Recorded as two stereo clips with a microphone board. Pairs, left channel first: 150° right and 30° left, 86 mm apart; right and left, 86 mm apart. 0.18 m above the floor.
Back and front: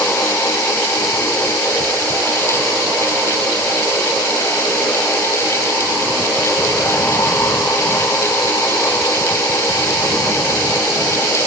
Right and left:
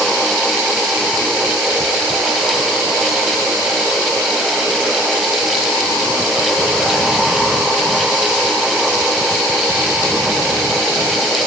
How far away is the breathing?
No breathing in this recording.